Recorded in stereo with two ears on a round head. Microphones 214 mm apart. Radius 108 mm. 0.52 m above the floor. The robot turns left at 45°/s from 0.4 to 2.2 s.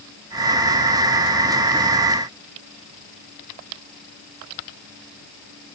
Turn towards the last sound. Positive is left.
No sound to turn to.